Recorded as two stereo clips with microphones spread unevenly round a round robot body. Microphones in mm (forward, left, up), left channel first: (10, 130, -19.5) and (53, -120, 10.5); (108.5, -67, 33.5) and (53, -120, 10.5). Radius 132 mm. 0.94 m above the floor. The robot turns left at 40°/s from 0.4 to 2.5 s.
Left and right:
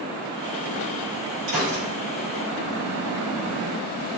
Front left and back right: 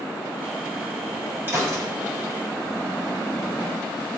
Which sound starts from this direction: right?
A gunshot, at 1.5 s.